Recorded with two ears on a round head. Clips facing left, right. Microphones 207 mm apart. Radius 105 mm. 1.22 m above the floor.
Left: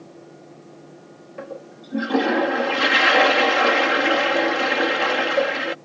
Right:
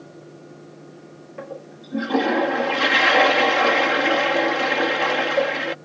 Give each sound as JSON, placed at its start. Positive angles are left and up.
{"t": 1.4, "sound": "a toilet flushing", "side_deg": 5}